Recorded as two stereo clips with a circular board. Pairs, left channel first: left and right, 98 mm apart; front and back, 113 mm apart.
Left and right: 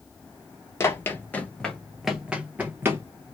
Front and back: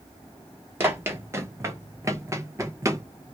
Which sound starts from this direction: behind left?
Running footsteps, at 0.8 s.